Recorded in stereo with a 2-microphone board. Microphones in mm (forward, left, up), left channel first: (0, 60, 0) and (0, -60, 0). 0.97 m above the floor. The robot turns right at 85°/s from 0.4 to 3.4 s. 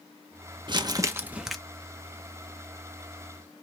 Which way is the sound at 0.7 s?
75° right.